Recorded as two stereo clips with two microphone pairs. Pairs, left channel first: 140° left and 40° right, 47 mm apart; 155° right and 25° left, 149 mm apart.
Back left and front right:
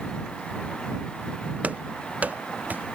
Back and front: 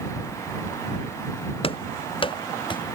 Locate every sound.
1.6 s running footsteps: 100° right; by 3.0 s 95° right